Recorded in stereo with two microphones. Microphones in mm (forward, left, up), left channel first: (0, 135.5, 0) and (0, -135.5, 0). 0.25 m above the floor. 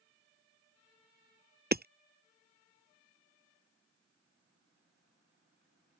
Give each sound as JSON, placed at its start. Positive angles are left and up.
{"t": 1.7, "sound": "hammering", "side_deg": -40}